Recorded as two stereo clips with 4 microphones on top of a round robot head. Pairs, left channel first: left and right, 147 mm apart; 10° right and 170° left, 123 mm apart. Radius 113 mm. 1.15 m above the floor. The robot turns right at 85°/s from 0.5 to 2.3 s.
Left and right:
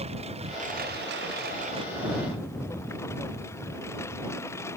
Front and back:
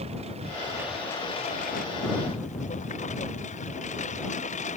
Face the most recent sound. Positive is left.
turn(degrees=15)